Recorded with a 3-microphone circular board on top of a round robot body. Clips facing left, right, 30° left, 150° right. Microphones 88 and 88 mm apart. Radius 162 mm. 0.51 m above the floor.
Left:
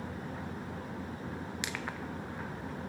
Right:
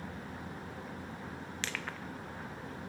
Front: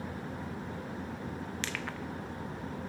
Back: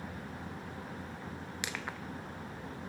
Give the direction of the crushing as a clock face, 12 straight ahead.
7 o'clock.